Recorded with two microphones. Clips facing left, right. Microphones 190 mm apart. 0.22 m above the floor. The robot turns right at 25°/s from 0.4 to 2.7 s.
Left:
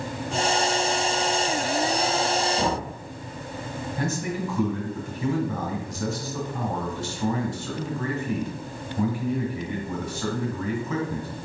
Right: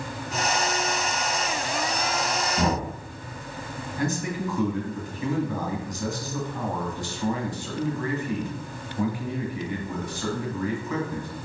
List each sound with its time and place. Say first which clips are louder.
2.6 s knocking: right 1 dB; 60° right (ahead or behind), 2 m; by 2.9 s 55° right (ahead or behind), 2 m
4.0 s a man speaking: right 1 dB; 25° left (ahead or behind), 1.8 m